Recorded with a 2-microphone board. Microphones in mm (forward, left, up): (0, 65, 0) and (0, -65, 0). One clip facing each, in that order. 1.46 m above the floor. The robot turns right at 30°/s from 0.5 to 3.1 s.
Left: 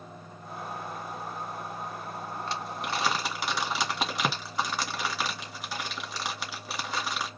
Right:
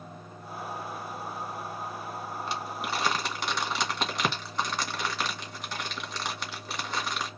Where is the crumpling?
15° right (ahead or behind), 2 m; by 7.3 s 5° left (ahead or behind), 2 m.